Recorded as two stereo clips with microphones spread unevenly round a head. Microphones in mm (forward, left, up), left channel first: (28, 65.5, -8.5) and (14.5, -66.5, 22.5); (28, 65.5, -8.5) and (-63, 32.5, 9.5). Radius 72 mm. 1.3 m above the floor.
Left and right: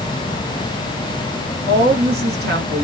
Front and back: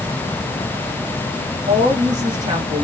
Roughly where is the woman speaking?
Behind right.